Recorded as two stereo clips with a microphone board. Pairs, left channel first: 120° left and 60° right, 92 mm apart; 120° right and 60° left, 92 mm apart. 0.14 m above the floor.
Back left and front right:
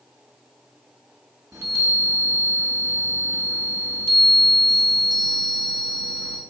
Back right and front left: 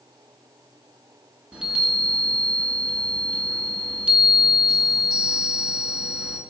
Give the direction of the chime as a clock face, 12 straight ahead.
12 o'clock.